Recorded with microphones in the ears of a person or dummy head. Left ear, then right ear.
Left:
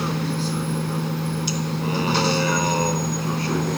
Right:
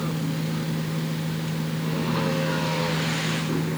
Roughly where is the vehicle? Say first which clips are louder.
Left 4 dB; left.